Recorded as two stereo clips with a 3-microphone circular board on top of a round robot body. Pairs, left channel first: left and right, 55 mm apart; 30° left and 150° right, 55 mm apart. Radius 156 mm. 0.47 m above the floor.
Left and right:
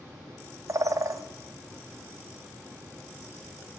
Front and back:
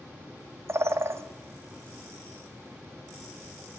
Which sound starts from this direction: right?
A bird, at 0.7 s.